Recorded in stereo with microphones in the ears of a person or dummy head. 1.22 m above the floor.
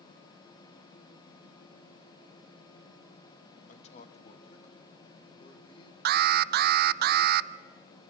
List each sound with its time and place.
3.7 s a man speaking: 45° left (ahead or behind), 1.7 m; by 6.0 s 30° left (ahead or behind), 4.5 m
6.0 s an alarm: 60° right (ahead or behind), 0.6 m